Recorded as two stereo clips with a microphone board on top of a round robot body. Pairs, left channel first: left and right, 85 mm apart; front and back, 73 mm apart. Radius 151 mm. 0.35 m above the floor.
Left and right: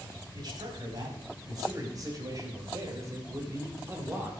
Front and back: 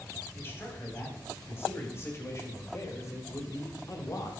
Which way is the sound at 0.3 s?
60° right.